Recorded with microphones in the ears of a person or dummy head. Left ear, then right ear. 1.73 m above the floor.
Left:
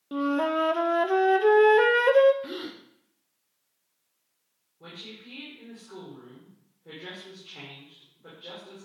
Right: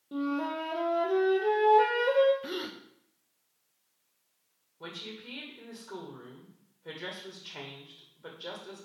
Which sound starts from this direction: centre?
A gasp, at 2.4 s.